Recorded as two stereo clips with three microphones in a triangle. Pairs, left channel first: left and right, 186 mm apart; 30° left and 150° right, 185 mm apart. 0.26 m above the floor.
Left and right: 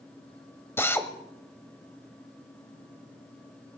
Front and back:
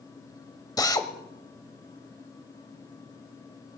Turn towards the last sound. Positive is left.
turn(degrees=40)